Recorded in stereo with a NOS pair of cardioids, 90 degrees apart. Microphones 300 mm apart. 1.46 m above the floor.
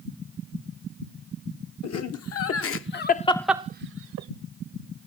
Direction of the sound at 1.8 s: 60° left.